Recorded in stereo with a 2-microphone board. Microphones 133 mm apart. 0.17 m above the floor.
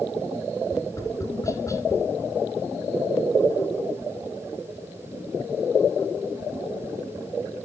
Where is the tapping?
25° left (ahead or behind), 1.6 m.